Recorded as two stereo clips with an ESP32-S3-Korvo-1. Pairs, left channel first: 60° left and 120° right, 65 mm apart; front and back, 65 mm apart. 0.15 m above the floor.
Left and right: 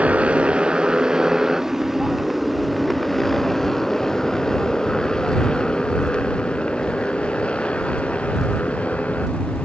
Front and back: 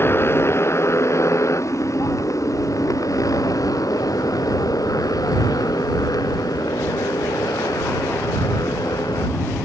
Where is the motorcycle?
50° right; by 9.7 s 5° right.